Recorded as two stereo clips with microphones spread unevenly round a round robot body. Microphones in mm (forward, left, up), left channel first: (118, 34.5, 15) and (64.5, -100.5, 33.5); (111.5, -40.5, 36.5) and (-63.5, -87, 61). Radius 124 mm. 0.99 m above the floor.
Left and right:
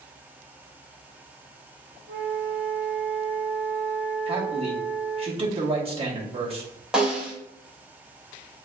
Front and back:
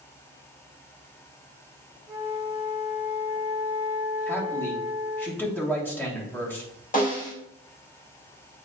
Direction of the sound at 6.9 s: 25° right.